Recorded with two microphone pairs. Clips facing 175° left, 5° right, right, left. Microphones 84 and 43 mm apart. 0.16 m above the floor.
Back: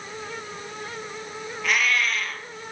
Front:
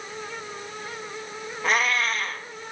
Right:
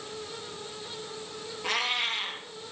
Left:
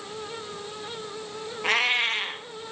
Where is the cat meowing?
45° left, 2.0 m.